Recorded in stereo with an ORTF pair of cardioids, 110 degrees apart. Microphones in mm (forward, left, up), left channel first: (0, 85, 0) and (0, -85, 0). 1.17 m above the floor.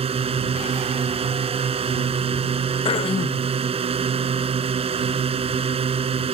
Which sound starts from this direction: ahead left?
Throat clearing, at 2.9 s.